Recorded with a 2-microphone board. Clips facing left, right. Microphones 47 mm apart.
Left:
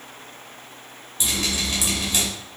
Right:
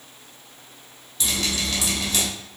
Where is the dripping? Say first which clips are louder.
Even; 20° left (ahead or behind), 0.9 m.